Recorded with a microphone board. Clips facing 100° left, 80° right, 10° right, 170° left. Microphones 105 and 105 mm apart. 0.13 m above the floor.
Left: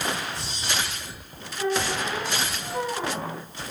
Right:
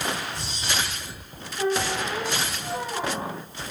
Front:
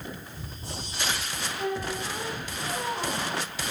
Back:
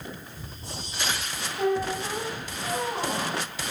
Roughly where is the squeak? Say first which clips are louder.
Right 1 dB, back 6 dB; behind right.